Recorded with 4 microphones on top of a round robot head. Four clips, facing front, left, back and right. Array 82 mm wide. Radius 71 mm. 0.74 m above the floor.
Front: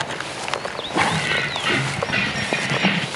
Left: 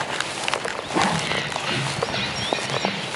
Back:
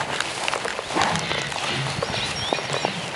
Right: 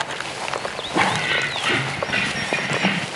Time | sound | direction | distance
1.0 | keys jangling | 55° right | 2.5 m